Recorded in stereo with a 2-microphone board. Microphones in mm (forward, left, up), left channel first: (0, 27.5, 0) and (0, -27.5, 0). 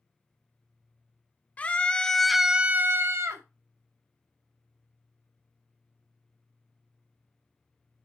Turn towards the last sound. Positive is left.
turn(degrees=-65)  # may be behind; listen again after turning